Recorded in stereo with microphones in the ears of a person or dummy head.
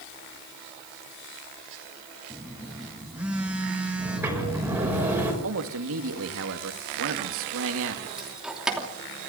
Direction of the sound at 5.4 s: 70° right (ahead or behind).